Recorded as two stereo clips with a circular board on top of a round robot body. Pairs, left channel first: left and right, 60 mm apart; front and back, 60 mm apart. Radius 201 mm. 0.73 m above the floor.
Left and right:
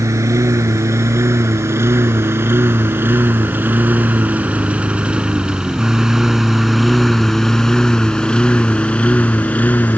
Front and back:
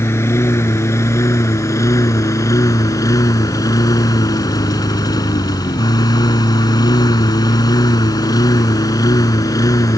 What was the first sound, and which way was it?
A lawn mower, 50° right.